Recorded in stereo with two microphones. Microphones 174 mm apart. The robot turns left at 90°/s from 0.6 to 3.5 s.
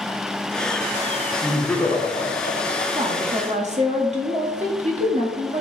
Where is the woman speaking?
45° right, 1.1 m; by 5.6 s 95° right, 1.1 m.